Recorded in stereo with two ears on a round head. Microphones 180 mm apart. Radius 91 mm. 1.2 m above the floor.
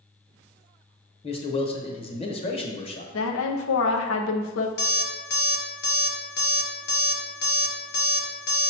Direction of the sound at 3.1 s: 80° left.